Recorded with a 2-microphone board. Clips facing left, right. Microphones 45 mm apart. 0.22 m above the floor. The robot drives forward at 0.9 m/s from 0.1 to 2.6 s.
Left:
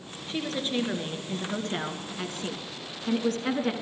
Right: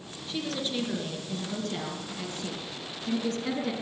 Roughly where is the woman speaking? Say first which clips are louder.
Left 2 dB; left.